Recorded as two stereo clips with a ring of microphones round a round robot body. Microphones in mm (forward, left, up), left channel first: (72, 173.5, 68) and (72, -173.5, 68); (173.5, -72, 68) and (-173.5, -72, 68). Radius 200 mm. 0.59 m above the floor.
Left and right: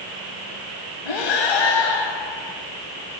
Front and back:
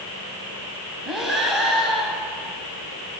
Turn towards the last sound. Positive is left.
turn(degrees=90)